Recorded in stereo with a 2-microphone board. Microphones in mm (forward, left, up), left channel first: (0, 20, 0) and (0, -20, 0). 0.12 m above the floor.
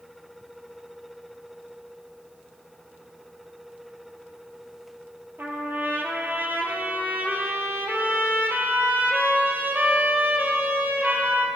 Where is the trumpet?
60° right (ahead or behind), 1.0 m.